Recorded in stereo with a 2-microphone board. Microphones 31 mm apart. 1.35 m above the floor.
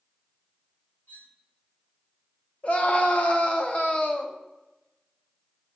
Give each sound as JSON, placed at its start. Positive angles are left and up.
{"t": 1.1, "sound": "cutlery clinking", "side_deg": 70, "distance_m": 1.4}
{"t": 2.6, "sound": "a scream", "side_deg": 45, "distance_m": 0.7}